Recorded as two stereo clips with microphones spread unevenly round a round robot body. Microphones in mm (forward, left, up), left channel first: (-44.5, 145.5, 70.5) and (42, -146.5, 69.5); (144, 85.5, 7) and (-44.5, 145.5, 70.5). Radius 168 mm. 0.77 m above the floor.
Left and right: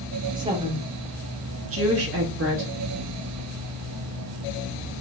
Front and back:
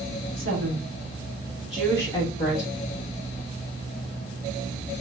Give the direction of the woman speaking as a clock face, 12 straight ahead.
5 o'clock.